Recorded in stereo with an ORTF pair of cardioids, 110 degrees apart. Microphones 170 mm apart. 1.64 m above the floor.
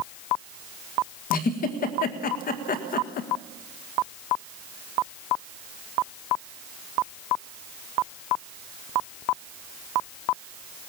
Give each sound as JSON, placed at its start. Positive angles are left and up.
{"t": 1.3, "sound": "a giggle", "azimuth_deg": 65, "distance_m": 1.8}